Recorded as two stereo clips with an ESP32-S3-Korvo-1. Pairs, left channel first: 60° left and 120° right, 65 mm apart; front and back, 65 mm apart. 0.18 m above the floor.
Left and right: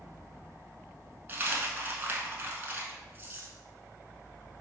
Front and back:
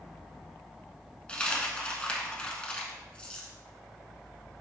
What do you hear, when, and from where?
1.3 s a dropped coin: 70° right, 0.7 m